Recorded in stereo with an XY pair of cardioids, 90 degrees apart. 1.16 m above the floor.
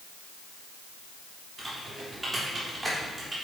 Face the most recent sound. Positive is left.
turn(degrees=-25)